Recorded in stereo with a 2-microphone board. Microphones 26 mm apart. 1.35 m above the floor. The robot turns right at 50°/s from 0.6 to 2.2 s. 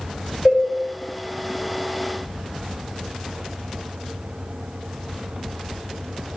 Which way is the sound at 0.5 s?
15° right (ahead or behind).